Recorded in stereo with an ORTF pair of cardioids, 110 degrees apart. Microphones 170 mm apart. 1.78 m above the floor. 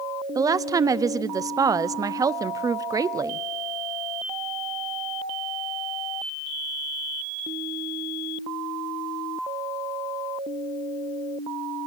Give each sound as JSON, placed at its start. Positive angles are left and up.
{"t": 0.3, "sound": "a woman speaking", "azimuth_deg": -20, "distance_m": 0.8}